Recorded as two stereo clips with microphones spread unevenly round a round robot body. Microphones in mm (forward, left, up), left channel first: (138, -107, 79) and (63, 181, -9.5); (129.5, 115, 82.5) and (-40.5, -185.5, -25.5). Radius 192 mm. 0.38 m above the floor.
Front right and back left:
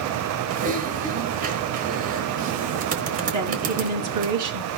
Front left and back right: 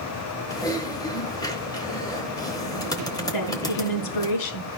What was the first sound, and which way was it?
Typing on a keyboard, 150° left.